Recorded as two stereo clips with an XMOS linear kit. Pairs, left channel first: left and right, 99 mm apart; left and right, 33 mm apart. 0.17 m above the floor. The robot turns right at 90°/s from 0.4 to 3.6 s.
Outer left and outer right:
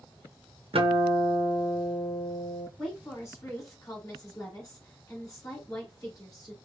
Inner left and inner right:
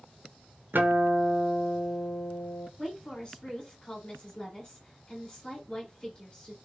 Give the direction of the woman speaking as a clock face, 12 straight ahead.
12 o'clock.